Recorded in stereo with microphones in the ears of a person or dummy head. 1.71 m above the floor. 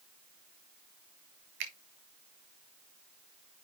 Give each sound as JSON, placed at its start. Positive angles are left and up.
{"t": 1.6, "sound": "a finger snap", "side_deg": -50, "distance_m": 1.4}